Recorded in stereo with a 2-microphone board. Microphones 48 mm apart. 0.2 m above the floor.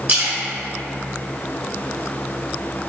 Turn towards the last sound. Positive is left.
turn(degrees=-35)  # may be behind; listen again after turning